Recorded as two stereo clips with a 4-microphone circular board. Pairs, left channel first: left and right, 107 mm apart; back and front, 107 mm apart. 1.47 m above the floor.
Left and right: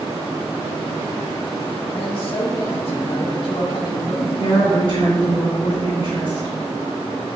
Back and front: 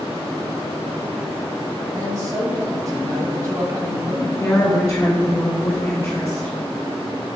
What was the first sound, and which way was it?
A man speaking, 55° left.